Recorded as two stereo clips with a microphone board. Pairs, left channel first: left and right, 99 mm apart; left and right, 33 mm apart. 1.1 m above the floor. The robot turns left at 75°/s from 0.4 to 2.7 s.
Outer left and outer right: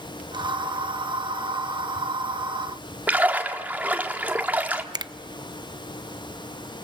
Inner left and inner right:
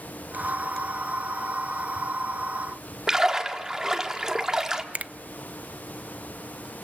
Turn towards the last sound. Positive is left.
turn(degrees=-45)  # may be behind; listen again after turning